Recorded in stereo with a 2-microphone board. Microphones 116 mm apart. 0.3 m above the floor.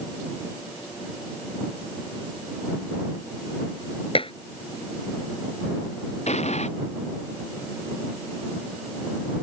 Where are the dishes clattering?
50° left (ahead or behind).